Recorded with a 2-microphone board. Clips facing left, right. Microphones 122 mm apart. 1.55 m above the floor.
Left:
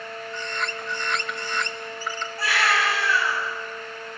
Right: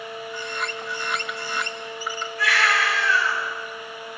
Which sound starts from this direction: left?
A baby crying, at 2.4 s.